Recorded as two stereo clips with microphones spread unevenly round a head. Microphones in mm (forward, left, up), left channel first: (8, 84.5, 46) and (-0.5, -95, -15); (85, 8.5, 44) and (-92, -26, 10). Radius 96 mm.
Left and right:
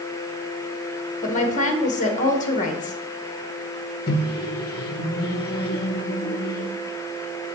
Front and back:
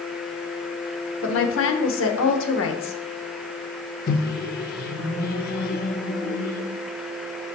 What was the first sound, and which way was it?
A woman speaking, 35° left.